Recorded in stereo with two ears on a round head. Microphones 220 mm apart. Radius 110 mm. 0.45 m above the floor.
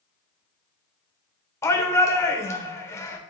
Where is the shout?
10° left (ahead or behind), 1.1 m.